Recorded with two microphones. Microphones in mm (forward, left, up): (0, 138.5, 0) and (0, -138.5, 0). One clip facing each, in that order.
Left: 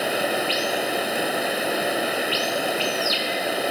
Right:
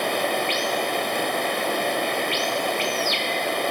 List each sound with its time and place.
0.0 s running water: 5° left (ahead or behind)